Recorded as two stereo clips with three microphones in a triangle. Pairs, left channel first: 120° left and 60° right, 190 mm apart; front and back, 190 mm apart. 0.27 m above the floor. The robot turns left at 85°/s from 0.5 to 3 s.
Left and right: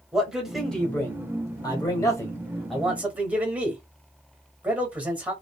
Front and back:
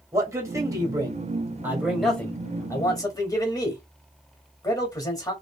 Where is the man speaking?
140° right, 1.0 m; by 5.3 s 5° left, 1.0 m.